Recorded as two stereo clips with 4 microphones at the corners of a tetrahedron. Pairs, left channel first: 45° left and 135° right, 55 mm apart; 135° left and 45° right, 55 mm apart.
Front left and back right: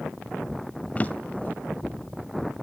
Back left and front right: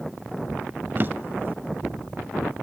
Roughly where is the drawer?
Ahead.